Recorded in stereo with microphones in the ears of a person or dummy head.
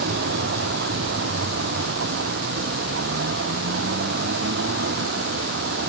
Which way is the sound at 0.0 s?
60° right (ahead or behind).